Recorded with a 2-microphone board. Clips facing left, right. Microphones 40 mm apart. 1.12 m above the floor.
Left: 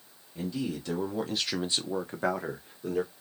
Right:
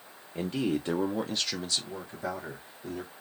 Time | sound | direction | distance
0.3 | a man speaking | 50° right (ahead or behind) | 0.8 m